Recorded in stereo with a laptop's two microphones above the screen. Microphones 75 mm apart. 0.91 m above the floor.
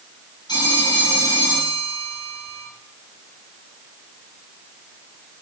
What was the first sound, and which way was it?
A phone ringing, 80° left.